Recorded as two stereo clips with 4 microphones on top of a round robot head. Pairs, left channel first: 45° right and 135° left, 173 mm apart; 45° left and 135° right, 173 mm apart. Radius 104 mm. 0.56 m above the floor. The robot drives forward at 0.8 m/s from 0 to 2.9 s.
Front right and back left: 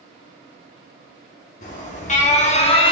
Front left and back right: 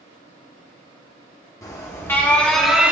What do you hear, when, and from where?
1.6 s an alarm: 20° right, 1.7 m; by 2.9 s 60° right, 1.1 m